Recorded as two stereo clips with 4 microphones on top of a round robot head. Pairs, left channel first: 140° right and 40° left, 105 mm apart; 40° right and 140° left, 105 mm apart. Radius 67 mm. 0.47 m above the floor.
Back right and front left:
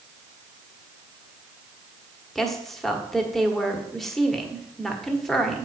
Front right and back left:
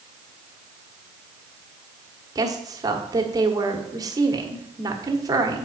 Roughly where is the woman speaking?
Behind left.